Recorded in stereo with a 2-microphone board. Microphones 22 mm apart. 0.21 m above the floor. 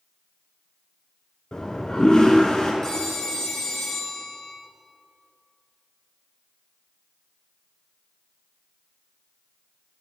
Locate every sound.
1.5 s a toilet flushing: 50° left (ahead or behind), 1.0 m
2.8 s a phone ringing: 30° left (ahead or behind), 2 m